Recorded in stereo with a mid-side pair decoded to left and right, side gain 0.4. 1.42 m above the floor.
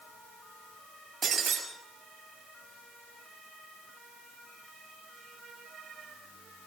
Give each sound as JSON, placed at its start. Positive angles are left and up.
{"t": 1.2, "sound": "breaking glass", "azimuth_deg": -55, "distance_m": 6.0}